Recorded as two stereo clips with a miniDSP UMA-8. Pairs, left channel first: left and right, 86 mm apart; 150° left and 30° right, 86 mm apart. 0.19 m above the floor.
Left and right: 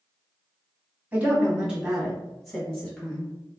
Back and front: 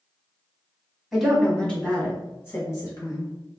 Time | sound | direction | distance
1.1 | a woman speaking | 110° right | 1.4 m